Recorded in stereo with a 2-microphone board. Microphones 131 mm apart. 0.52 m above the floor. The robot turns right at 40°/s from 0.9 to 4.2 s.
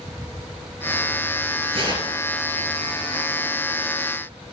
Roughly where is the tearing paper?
Right.